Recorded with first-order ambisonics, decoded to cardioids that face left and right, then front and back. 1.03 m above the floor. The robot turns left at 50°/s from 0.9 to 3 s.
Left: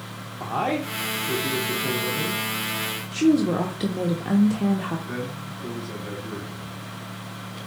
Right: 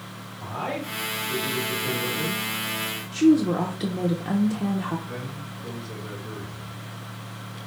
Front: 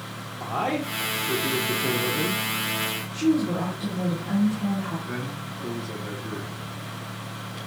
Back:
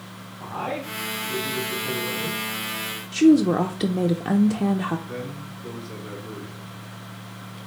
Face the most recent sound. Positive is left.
turn(degrees=30)